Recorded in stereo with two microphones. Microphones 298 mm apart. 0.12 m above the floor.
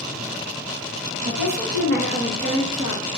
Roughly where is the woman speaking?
Right.